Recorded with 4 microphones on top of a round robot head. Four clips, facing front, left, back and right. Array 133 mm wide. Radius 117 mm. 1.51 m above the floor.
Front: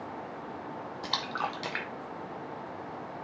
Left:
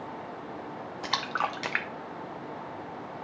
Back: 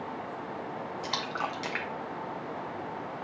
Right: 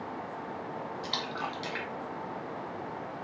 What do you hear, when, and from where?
1.0 s a splash: 80° left, 0.5 m